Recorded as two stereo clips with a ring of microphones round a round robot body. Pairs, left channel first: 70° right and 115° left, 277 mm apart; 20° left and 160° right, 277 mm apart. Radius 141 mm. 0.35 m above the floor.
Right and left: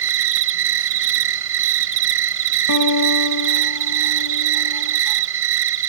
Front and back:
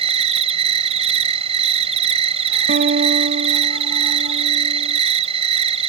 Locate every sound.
0.0 s an insect: 140° left
2.7 s a guitar: 95° right